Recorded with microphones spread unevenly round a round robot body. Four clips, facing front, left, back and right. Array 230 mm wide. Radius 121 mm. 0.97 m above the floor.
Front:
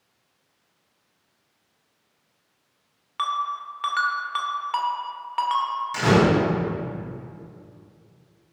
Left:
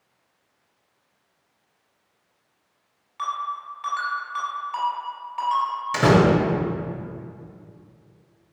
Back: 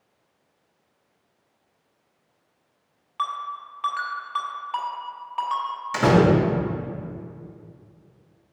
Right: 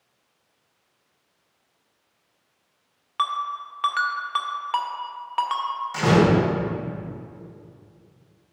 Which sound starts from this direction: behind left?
A door slam, at 5.9 s.